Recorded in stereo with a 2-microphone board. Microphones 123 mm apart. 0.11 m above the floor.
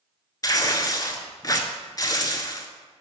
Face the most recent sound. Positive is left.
turn(degrees=35)  # may be behind; listen again after turning